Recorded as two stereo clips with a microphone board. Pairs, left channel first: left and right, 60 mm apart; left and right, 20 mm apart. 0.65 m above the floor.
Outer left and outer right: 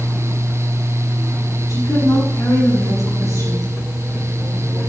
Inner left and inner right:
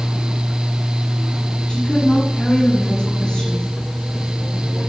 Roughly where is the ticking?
No ticking in this recording.